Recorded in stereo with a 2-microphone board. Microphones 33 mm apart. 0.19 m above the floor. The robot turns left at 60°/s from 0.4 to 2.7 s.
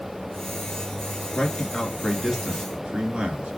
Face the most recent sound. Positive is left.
turn(degrees=-35)  # may be behind; listen again after turning